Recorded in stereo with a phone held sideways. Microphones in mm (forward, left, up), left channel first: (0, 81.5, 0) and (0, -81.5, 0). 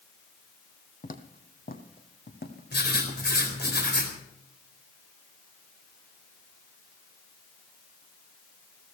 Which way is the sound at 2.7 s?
80° left.